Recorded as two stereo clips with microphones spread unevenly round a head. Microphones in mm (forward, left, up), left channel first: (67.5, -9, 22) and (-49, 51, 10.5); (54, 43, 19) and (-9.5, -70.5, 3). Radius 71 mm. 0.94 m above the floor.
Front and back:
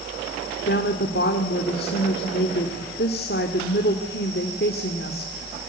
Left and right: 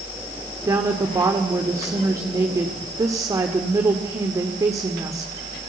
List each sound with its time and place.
0.6 s a woman speaking: 50° right, 2 m